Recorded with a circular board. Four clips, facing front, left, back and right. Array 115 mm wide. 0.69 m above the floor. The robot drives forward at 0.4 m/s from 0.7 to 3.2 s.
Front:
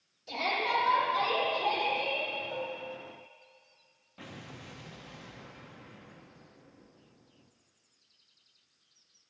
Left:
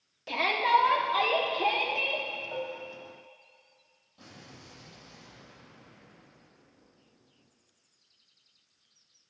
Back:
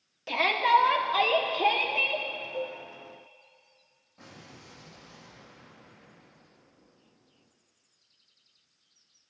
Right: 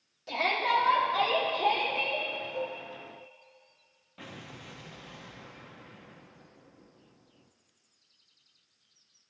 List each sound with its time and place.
0.3 s a shout: 160° left, 1.4 m; by 2.2 s 165° left, 1.9 m
2.5 s dishes clattering: 55° left, 2.0 m
4.2 s an explosion: 65° right, 0.6 m